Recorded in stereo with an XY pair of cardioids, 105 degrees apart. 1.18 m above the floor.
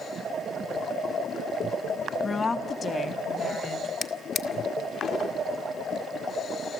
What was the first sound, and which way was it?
A woman speaking, 35° left.